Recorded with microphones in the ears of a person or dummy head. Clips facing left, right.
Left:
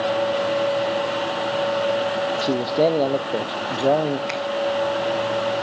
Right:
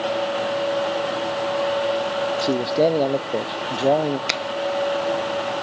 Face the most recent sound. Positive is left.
turn(degrees=-65)  # may be behind; listen again after turning